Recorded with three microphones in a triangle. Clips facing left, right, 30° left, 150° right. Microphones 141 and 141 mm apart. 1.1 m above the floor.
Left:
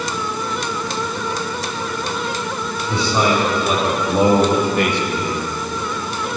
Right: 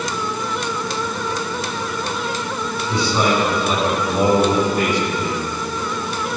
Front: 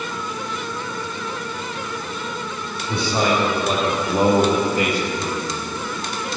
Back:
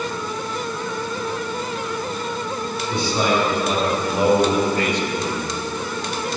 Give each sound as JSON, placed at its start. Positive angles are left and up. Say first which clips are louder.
{"t": 2.9, "sound": "a man speaking", "louder": "left 1 dB, front 1 dB", "azimuth_deg": 60, "distance_m": 3.5}